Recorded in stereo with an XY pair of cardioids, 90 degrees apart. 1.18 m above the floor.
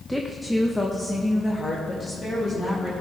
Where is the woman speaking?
5° right, 0.8 m; by 2.9 s 30° left, 2.5 m.